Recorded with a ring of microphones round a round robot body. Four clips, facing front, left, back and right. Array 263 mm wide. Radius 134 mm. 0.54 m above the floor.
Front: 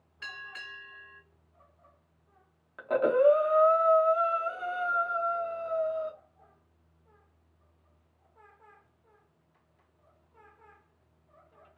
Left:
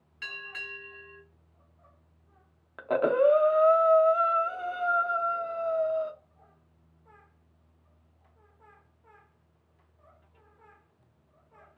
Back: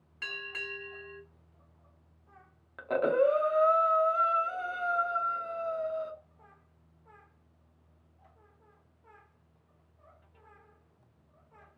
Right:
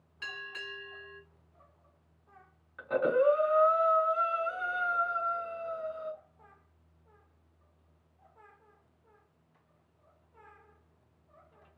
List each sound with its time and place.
0.2 s a bell: 165° left, 1.2 m
2.8 s breathing: 95° left, 0.6 m